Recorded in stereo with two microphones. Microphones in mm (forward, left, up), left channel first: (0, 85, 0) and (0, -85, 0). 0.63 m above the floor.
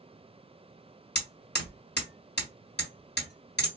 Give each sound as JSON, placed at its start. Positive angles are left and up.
{"t": 1.1, "sound": "hammering", "side_deg": 80, "distance_m": 1.4}